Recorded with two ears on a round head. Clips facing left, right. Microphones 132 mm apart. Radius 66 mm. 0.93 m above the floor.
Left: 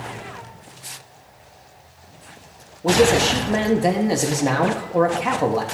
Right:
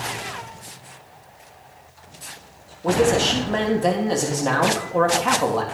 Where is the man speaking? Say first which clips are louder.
Left 2 dB; 10° left (ahead or behind), 1.4 m.